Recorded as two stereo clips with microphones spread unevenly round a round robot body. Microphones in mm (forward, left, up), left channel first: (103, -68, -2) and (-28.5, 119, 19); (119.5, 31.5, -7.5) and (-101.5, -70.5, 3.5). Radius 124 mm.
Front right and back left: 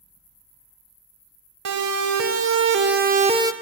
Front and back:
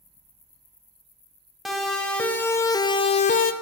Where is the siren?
115° left, 3.5 m; by 3.5 s 45° left, 1.5 m.